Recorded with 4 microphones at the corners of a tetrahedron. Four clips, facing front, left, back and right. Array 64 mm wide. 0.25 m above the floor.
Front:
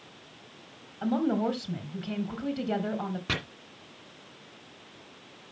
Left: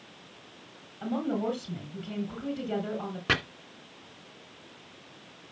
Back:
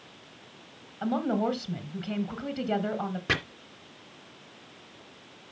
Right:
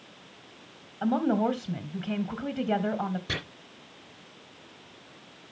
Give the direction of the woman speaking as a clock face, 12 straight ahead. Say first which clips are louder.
Right 5 dB, even; 3 o'clock.